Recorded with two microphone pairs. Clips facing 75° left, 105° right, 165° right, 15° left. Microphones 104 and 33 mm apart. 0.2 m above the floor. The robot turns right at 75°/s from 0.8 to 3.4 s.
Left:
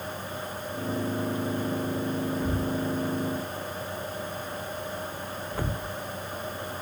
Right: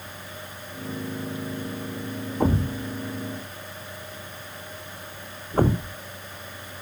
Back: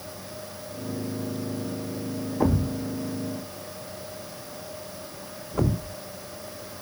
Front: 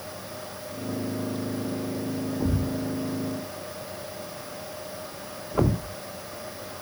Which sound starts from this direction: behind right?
A thud, at 2.4 s.